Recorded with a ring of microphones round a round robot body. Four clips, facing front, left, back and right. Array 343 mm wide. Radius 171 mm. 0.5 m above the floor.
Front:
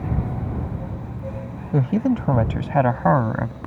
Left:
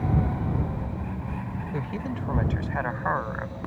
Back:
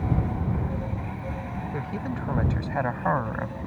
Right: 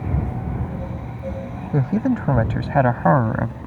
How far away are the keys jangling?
I don't hear keys jangling.